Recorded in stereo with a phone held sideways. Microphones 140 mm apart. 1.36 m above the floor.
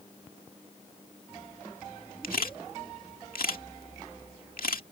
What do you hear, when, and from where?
2.2 s a camera shutter: 75° left (ahead or behind)